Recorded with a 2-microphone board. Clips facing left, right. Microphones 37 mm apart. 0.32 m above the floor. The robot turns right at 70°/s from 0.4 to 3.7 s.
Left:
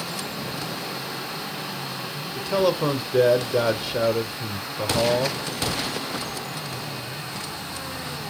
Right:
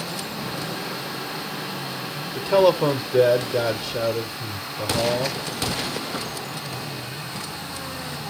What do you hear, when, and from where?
2.4 s a man speaking: 15° right (ahead or behind), 0.8 m; by 5.4 s 15° left (ahead or behind), 0.8 m